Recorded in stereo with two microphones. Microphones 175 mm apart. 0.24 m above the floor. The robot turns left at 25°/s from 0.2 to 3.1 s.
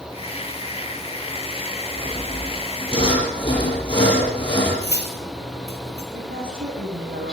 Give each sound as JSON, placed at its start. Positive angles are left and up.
{"t": 2.0, "sound": "sawing", "side_deg": 55, "distance_m": 7.0}
{"t": 4.8, "sound": "cutlery clinking", "side_deg": 75, "distance_m": 3.5}
{"t": 6.1, "sound": "a woman speaking", "side_deg": -60, "distance_m": 9.5}